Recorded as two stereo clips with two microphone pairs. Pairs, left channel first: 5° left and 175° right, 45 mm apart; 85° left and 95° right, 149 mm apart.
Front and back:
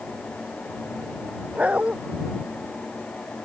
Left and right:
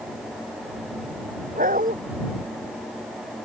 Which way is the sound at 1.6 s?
115° right.